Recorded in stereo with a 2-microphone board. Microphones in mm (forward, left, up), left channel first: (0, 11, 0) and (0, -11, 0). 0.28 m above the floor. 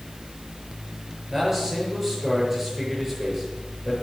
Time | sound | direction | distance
1.3 | a man speaking | 15° right (ahead or behind) | 7 m